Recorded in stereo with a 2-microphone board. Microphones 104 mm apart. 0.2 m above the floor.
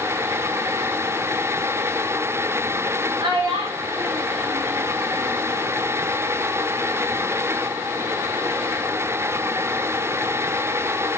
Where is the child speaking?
55° right (ahead or behind), 5 m; by 5.5 s 70° right (ahead or behind), 5.5 m.